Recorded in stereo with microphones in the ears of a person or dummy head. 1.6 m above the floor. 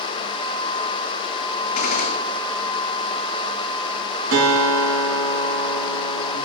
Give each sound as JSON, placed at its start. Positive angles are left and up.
{"t": 1.8, "sound": "a gunshot", "side_deg": 55, "distance_m": 1.6}
{"t": 4.3, "sound": "a guitar", "side_deg": -90, "distance_m": 4.5}